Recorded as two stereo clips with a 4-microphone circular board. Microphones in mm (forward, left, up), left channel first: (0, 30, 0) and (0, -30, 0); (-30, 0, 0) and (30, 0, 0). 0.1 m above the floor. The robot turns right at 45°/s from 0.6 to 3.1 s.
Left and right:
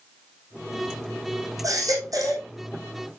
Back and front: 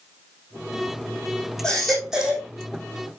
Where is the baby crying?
105° right, 3 m; by 2.5 s 65° right, 3 m.